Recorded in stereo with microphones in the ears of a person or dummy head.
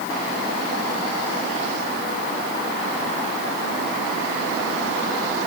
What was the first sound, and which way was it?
Only background noise.